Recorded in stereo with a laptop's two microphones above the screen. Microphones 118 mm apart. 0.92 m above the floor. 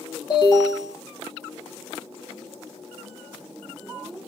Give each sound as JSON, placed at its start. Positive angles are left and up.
{"t": 0.3, "sound": "an alarm", "side_deg": 40, "distance_m": 1.9}